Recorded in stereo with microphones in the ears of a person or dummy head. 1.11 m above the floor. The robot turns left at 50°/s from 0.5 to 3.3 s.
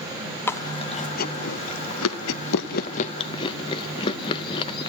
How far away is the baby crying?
No baby crying in this recording.